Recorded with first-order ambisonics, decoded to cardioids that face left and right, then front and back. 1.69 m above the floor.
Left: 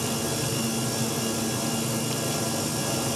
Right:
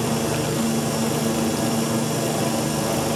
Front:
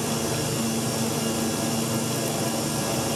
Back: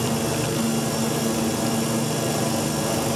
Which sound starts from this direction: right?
A helicopter, at 0.0 s.